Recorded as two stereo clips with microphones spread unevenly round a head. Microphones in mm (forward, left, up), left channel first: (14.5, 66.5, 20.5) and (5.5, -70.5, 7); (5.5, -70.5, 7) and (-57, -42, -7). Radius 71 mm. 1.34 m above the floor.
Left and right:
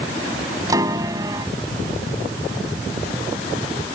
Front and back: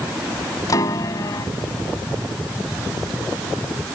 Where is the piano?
25° right.